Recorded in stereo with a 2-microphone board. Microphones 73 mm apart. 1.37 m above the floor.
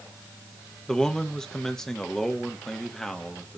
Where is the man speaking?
10° left (ahead or behind), 1.5 m.